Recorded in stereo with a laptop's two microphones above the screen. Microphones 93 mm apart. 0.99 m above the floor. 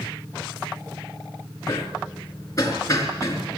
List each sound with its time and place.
1.7 s hammering: 35° left (ahead or behind), 4.5 m